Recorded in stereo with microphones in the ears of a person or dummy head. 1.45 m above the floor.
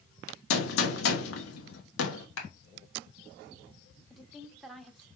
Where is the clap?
85° left, 1.4 m.